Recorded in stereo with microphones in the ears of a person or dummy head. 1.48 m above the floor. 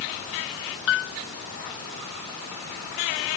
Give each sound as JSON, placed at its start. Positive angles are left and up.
{"t": 0.9, "sound": "a piano", "side_deg": 70}